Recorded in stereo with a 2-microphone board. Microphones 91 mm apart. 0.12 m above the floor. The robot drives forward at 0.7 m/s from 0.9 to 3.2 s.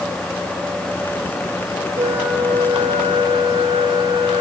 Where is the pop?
No pop in this recording.